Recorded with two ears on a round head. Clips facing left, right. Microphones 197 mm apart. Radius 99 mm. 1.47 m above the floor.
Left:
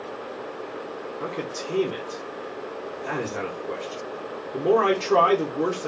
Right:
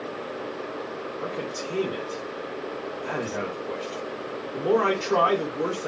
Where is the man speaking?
30° left (ahead or behind), 1.9 m.